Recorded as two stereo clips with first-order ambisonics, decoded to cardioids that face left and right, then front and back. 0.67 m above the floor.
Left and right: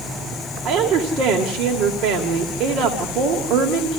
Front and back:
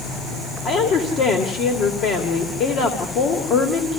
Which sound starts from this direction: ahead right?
A woman speaking, at 0.7 s.